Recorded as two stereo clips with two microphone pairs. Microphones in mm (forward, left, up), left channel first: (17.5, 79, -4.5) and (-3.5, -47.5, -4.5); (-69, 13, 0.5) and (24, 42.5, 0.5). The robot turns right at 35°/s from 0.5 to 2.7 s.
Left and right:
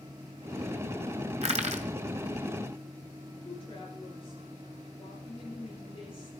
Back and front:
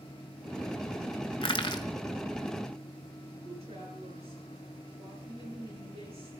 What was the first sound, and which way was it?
Crushing, 135° right.